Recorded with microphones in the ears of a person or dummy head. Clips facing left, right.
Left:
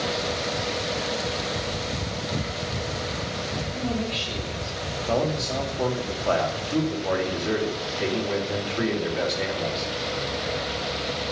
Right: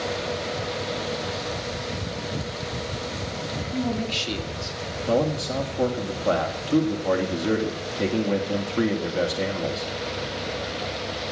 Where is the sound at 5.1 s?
45° right (ahead or behind), 2.0 m.